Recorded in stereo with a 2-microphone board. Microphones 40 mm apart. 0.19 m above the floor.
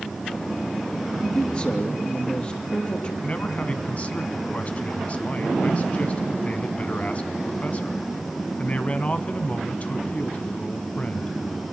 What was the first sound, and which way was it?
A man speaking, 25° left (ahead or behind).